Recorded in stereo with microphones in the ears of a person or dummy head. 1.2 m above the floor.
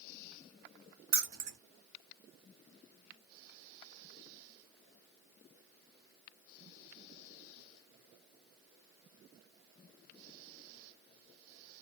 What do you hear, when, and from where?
1.1 s keys jangling: 45° right (ahead or behind), 0.8 m